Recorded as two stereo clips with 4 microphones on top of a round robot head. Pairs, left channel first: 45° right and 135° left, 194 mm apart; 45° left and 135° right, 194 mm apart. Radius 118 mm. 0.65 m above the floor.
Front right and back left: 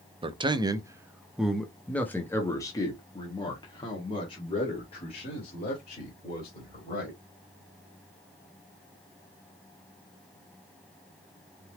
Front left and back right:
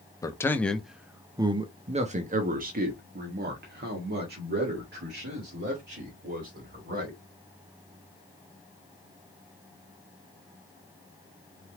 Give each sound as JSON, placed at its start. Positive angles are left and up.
{"t": 0.2, "sound": "a man speaking", "azimuth_deg": 100, "distance_m": 0.9}